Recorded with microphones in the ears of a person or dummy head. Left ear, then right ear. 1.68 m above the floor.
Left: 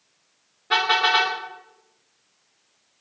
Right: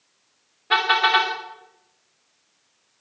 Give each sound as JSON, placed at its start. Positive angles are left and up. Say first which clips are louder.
{"t": 0.7, "sound": "a car horn", "louder": "right 1 dB", "side_deg": -15, "distance_m": 3.0}